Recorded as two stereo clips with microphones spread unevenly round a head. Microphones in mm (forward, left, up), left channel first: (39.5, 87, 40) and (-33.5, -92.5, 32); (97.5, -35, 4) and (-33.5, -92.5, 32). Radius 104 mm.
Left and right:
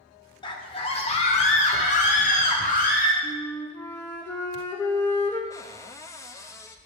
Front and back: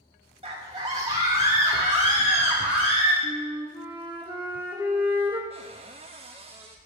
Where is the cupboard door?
145° left, 0.5 m.